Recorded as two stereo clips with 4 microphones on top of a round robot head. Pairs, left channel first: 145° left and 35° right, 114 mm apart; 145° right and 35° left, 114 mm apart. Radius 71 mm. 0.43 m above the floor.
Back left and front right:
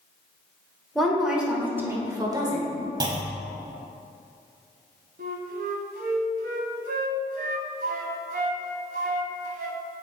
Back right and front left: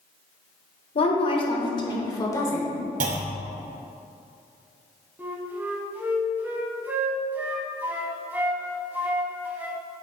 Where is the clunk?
25° left, 0.8 m.